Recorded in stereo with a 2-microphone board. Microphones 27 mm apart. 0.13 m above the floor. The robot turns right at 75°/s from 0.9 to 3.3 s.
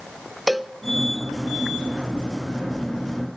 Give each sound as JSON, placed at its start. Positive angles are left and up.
{"t": 0.5, "sound": "a cowbell", "side_deg": -5, "distance_m": 0.5}